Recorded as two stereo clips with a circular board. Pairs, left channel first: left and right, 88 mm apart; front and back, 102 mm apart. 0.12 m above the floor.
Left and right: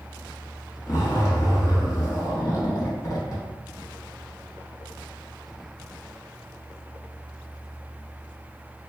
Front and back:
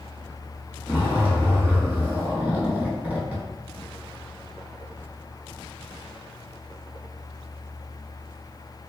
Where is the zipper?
110° left, 0.7 m.